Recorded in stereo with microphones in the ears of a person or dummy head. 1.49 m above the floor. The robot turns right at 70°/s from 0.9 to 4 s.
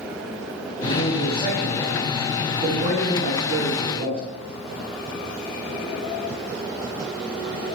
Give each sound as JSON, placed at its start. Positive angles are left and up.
{"t": 0.8, "sound": "a man speaking", "azimuth_deg": 105, "distance_m": 9.0}